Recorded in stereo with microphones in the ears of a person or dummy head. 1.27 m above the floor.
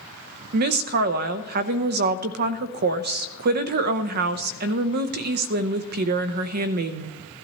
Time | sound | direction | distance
0.5 | a woman speaking | 50° right (ahead or behind) | 0.8 m